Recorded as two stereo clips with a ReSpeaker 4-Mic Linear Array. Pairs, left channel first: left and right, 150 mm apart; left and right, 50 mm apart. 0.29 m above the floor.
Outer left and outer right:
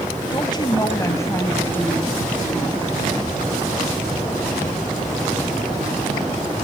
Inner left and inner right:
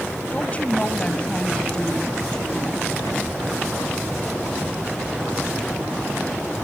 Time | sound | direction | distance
0.3 | a woman speaking | 30° left (ahead or behind) | 1.8 m